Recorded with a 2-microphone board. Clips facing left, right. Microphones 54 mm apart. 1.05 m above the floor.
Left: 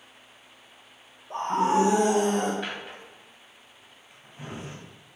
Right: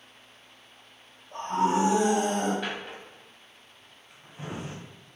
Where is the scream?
80° left, 1.1 m; by 2.5 s 60° left (ahead or behind), 2 m.